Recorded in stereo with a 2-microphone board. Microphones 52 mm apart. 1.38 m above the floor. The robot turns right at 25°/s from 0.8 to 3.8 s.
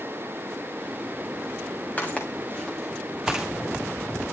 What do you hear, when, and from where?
2.0 s footsteps: 30° left (ahead or behind), 6.5 m; by 3.5 s 15° right (ahead or behind), 6.5 m